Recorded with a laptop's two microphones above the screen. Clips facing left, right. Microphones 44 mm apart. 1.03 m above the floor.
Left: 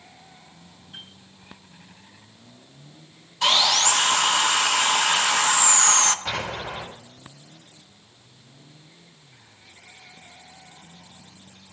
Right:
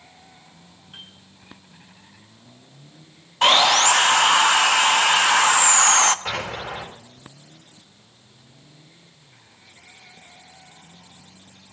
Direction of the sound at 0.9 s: 40° right (ahead or behind).